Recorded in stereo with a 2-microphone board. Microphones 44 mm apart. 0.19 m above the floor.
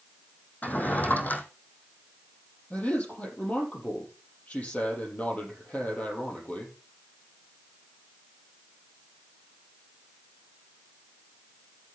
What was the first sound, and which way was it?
A drawer, 40° left (ahead or behind).